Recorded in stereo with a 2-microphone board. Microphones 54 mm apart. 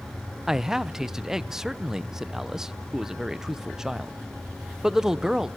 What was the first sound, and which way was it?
A man speaking, 10° right (ahead or behind).